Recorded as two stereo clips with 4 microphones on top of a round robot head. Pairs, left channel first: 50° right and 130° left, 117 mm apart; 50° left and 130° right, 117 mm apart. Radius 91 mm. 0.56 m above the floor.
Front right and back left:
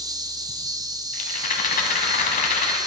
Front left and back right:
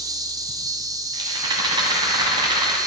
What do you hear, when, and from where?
0.0 s an insect: straight behind, 0.8 m
1.1 s a rattle: 70° right, 1.1 m